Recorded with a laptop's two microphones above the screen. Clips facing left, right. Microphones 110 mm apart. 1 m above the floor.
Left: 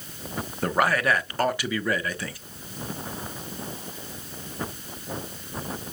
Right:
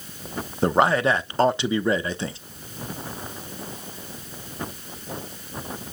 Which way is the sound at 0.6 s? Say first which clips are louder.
Right 4 dB; 25° right (ahead or behind).